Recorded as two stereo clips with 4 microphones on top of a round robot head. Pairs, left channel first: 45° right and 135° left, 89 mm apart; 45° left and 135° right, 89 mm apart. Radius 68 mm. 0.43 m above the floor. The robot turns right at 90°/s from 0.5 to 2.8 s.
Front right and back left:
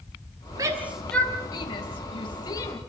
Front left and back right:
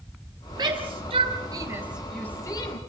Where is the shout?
Straight behind, 4 m; by 2.8 s 20° left, 4 m.